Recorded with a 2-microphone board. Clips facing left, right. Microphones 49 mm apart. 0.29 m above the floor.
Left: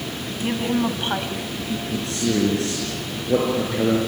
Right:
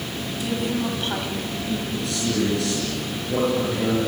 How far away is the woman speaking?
About 2 m.